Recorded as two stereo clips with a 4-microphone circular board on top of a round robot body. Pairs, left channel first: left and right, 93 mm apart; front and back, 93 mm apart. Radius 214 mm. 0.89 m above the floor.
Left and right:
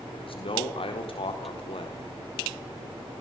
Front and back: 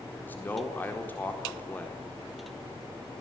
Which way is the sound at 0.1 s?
70° left.